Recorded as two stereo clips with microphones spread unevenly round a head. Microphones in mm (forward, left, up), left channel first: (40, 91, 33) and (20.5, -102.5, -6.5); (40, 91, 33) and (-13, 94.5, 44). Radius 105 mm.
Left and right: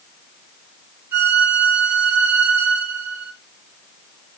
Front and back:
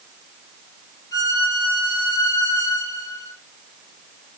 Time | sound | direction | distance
1.1 | a violin | 10° right | 3.5 m